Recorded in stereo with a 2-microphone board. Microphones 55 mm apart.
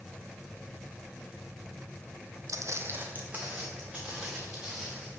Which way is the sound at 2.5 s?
65° right (ahead or behind).